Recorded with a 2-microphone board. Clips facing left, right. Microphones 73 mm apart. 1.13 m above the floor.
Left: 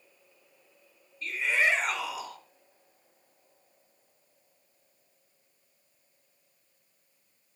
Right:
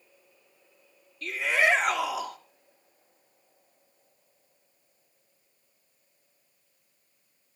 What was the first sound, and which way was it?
A shout, 80° right.